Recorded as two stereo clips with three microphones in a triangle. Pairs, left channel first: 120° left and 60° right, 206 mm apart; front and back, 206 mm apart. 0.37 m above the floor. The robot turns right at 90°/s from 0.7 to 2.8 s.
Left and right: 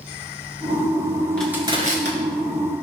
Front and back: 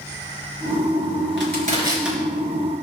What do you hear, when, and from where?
1.4 s crushing: 155° right, 4 m; by 2.2 s 85° right, 4 m